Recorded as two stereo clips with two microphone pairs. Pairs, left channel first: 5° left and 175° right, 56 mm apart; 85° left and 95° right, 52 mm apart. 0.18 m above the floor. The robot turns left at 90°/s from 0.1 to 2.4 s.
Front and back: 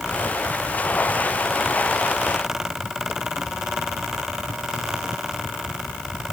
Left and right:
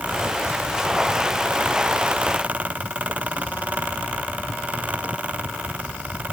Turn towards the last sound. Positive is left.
No sound to turn to.